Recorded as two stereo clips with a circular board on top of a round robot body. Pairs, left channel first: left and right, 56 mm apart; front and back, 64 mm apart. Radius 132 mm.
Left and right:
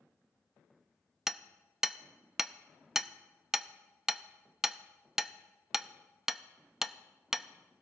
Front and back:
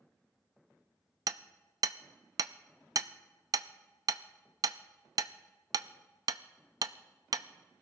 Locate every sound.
1.3 s hammering: 170° right, 0.6 m